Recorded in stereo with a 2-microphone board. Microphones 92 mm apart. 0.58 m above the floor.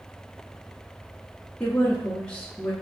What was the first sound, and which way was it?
A woman speaking, 10° left (ahead or behind).